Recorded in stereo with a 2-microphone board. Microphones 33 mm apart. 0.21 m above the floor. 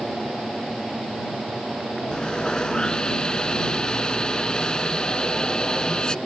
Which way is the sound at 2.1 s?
25° left (ahead or behind).